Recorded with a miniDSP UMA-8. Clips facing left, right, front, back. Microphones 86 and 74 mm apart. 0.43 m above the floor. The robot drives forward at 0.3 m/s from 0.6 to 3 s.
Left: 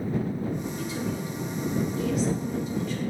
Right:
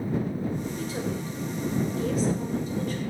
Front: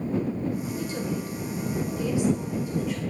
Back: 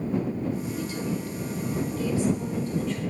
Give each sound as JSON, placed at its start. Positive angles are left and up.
{"t": 0.8, "sound": "a woman speaking", "azimuth_deg": -45, "distance_m": 1.5}